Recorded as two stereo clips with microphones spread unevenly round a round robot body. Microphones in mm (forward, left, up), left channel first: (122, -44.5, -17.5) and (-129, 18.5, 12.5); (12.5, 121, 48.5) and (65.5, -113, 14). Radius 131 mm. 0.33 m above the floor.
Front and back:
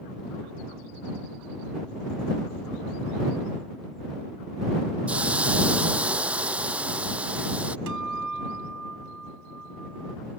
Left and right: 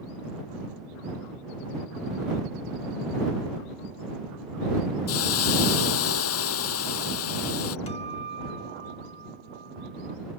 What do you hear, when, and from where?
5.1 s a hiss: 80° left
7.9 s a guitar: 170° left